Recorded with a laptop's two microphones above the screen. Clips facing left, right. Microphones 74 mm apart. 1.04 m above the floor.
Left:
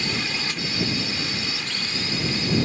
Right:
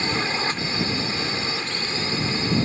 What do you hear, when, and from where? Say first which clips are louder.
0.0 s a drone: right 4 dB; 35° right (ahead or behind)